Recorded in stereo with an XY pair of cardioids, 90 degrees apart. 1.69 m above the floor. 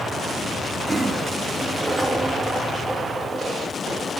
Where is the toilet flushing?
10° right, 2 m.